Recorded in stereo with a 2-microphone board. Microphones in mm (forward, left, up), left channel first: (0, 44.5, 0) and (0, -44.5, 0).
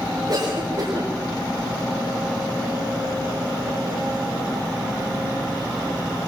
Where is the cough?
65° right (ahead or behind), 7 m.